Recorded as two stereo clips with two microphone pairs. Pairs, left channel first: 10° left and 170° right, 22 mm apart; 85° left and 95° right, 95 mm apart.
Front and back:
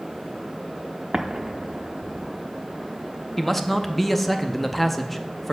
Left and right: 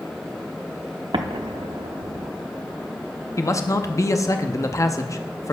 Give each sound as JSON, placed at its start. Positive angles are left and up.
{"t": 1.1, "sound": "an explosion", "azimuth_deg": -115, "distance_m": 0.7}
{"t": 3.4, "sound": "a man speaking", "azimuth_deg": 80, "distance_m": 0.6}